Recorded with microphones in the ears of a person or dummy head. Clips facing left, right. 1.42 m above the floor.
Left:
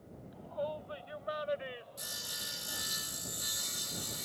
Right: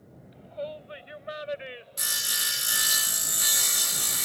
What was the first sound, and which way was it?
A shout, 30° right (ahead or behind).